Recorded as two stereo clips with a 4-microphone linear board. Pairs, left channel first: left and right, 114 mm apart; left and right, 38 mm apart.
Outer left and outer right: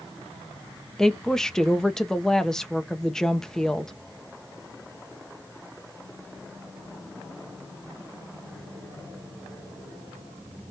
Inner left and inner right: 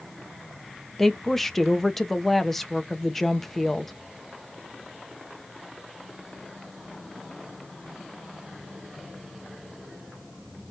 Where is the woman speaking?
5° left (ahead or behind), 1.2 m.